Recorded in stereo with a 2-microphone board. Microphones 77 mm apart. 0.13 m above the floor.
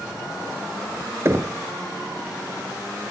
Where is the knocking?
40° right (ahead or behind), 1.6 m.